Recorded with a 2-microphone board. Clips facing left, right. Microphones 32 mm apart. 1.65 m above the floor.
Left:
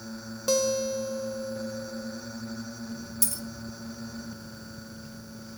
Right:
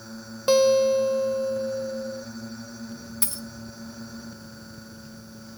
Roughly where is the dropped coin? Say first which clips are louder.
Right 1 dB; right.